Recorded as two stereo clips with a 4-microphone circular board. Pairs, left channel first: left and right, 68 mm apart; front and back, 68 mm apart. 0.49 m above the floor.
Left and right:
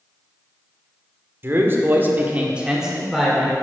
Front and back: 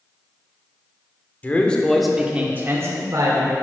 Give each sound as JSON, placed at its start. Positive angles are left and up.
{"t": 1.4, "sound": "a man speaking", "azimuth_deg": -55, "distance_m": 1.3}